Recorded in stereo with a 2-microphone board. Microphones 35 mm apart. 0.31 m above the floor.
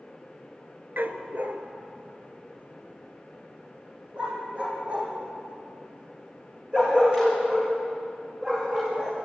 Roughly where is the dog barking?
Right.